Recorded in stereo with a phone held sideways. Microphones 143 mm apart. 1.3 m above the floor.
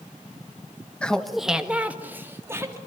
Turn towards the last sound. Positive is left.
turn(degrees=-20)  # may be behind; listen again after turning